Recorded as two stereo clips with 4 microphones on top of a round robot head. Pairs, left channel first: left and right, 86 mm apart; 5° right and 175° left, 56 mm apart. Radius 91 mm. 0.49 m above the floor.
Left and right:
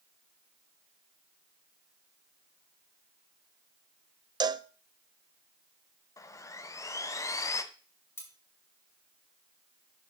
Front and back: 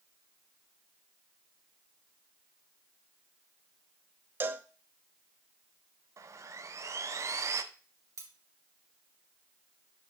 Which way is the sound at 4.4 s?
130° right.